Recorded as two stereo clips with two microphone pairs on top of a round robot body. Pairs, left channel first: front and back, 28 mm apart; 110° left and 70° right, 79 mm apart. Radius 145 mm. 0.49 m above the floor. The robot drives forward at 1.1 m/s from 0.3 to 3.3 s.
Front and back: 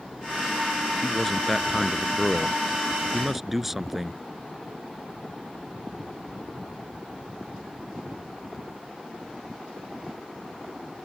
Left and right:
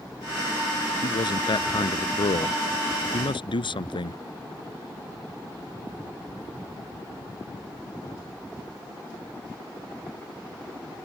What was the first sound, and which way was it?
A man speaking, 80° left.